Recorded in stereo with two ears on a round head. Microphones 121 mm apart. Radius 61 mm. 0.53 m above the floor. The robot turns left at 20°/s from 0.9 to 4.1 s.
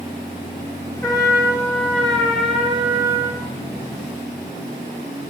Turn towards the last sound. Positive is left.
turn(degrees=-35)